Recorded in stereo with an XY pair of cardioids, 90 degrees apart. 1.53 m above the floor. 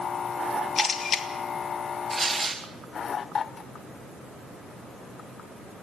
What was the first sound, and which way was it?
A camera shutter, 50° left.